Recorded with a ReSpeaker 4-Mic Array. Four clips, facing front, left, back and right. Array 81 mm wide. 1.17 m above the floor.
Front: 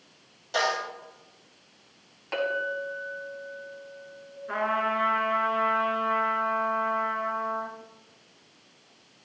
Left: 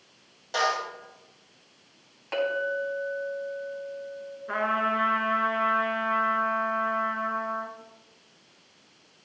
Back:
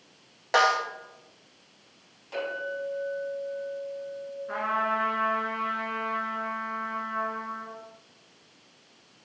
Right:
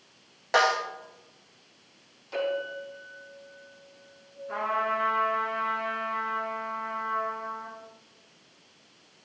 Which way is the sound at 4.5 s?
80° left.